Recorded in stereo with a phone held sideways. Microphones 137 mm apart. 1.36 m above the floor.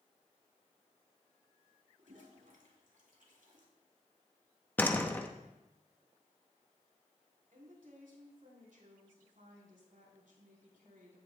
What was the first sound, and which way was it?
A toilet flushing, 75° right (ahead or behind).